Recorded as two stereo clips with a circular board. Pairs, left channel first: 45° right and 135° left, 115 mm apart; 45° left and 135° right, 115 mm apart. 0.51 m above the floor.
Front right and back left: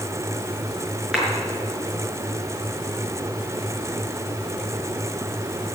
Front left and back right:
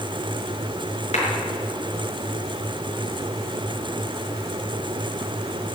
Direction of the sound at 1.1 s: 50° left.